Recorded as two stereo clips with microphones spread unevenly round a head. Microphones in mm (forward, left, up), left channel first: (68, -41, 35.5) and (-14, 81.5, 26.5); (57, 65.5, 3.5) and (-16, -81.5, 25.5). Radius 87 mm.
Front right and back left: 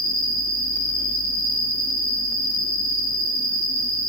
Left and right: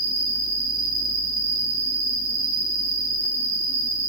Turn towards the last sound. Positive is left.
turn(degrees=-140)